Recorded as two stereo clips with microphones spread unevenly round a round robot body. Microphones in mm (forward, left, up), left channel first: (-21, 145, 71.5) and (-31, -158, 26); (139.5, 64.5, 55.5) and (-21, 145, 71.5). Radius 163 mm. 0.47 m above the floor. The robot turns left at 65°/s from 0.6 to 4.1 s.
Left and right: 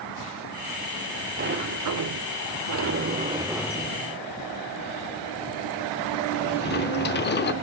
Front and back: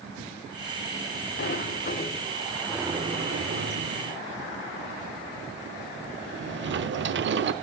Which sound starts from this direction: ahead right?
A sliding door, at 1.4 s.